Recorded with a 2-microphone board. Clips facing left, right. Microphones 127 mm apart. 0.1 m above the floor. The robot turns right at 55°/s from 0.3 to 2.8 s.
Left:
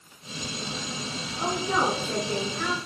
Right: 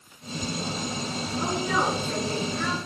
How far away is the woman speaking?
About 1.6 m.